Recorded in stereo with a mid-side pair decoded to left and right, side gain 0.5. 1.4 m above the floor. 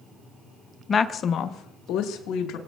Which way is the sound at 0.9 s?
35° left.